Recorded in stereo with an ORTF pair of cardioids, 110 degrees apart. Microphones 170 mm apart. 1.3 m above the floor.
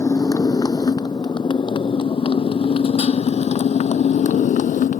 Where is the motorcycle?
20° left; by 5.0 s 55° left.